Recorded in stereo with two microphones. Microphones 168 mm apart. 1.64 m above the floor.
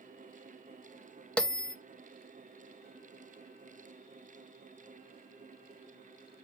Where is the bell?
5° left (ahead or behind), 0.6 m.